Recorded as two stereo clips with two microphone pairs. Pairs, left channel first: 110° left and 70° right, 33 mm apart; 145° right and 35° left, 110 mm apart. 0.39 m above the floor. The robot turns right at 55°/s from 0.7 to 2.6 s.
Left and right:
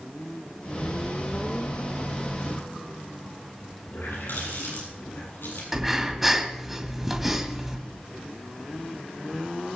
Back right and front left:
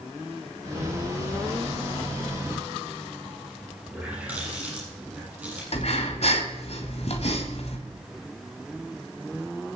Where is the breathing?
150° right, 2 m.